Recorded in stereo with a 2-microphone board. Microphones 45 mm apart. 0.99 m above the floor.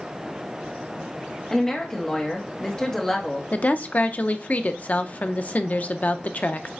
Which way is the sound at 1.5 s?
15° left (ahead or behind).